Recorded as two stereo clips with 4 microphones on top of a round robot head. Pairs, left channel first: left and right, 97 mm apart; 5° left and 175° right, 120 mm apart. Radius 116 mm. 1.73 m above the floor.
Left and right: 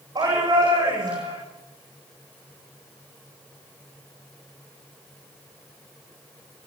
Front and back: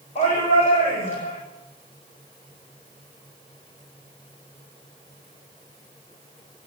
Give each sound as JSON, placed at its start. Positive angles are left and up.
{"t": 0.1, "sound": "a shout", "azimuth_deg": -40, "distance_m": 8.5}